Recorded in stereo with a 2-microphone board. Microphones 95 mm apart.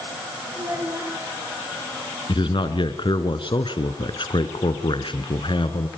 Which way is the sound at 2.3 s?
60° left (ahead or behind).